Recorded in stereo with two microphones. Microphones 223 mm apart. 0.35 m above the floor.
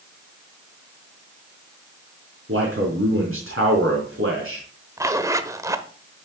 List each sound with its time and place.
2.5 s a man speaking: 70° right (ahead or behind), 4 m
5.0 s a zipper: 15° right (ahead or behind), 0.8 m